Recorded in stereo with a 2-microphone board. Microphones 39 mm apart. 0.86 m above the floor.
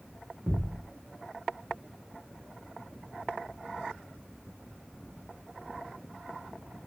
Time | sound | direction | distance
0.5 | a thud | 65° right (ahead or behind) | 1.1 m